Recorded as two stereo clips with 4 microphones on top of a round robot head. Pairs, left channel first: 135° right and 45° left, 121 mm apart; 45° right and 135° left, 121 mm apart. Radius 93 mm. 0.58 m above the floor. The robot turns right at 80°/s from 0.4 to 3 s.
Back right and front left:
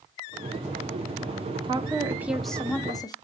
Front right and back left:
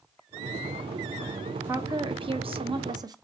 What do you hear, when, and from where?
1.6 s a woman speaking: 70° left, 0.7 m; by 3.1 s straight behind, 0.7 m